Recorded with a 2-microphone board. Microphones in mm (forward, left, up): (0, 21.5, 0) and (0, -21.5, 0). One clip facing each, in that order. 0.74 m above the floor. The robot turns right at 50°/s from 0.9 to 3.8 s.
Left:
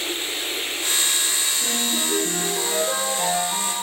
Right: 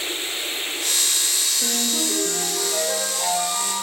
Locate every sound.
1.6 s a ringtone: 15° right, 6.5 m; by 3.8 s 95° left, 6.5 m